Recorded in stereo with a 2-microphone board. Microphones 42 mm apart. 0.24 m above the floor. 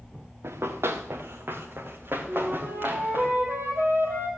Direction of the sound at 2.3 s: 75° right (ahead or behind).